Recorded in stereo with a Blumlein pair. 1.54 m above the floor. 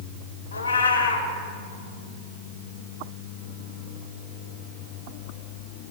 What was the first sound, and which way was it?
A cat meowing, 70° left.